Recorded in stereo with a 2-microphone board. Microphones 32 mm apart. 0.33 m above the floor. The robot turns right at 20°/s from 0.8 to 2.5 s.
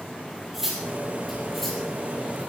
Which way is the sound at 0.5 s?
10° right (ahead or behind).